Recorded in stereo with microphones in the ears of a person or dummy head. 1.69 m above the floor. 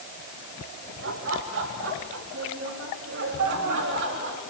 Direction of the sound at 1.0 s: 75° right (ahead or behind).